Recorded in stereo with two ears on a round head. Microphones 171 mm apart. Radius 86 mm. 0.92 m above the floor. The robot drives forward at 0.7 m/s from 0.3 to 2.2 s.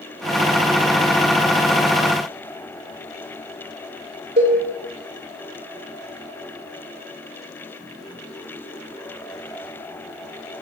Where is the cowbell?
30° right (ahead or behind), 3 m.